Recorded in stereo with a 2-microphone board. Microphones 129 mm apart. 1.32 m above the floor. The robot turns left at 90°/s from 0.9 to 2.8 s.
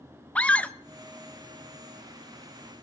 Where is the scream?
10° left (ahead or behind), 0.7 m.